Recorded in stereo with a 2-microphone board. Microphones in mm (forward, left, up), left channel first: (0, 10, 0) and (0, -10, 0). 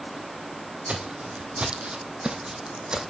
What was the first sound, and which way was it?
Footsteps, 65° right (ahead or behind).